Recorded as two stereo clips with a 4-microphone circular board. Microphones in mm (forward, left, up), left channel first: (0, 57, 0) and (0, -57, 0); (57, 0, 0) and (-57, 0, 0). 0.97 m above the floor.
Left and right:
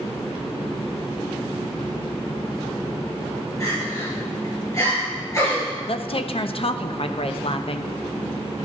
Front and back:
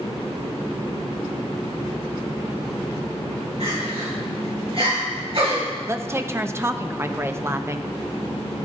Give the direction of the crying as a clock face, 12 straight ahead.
7 o'clock.